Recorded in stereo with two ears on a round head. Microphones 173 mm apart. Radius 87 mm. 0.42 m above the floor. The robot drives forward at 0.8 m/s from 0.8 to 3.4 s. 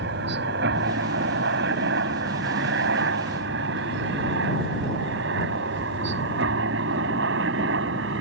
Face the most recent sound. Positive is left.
turn(degrees=-65)  # may be behind; listen again after turning